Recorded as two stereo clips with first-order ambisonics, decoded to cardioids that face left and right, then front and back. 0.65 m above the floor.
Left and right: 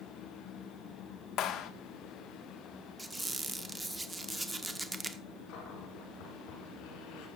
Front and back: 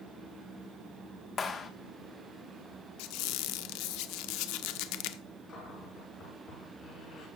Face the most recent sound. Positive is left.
turn(degrees=65)